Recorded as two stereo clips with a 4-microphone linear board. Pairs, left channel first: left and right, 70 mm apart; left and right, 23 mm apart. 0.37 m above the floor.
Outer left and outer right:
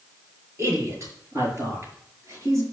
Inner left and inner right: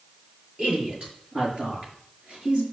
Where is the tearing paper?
I don't hear tearing paper.